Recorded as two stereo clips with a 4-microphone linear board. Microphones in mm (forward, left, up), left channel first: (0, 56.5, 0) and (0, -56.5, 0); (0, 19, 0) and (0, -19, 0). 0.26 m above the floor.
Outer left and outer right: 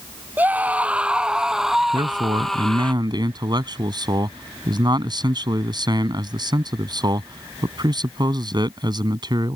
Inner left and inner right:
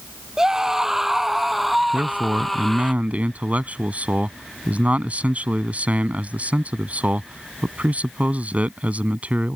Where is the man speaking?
40° right (ahead or behind).